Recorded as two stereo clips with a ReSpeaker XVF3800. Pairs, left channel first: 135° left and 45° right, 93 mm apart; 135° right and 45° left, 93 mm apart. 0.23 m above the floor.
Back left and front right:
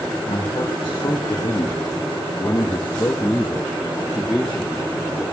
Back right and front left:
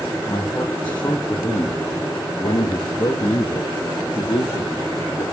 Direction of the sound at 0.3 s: 160° left.